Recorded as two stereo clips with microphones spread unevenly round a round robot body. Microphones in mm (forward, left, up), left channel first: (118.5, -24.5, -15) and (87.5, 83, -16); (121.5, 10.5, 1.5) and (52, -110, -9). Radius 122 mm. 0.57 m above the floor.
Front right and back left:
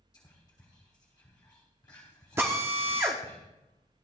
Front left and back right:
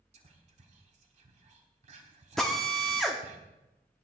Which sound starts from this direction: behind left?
A drill, at 2.4 s.